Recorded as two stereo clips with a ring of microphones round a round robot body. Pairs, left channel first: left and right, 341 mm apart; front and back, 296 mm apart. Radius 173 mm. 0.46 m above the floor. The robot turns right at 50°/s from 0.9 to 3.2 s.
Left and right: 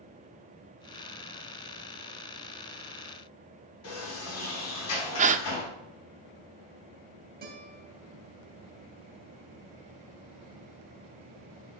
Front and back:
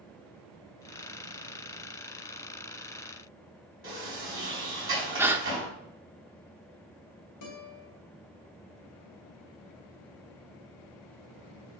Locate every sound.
3.8 s a sliding door: 135° left, 4.5 m
5.2 s a gasp: 110° right, 0.6 m
7.4 s a guitar: 30° right, 2.5 m